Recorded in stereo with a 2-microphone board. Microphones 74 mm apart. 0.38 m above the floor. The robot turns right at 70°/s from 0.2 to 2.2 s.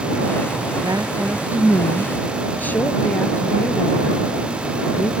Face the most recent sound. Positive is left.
turn(degrees=20)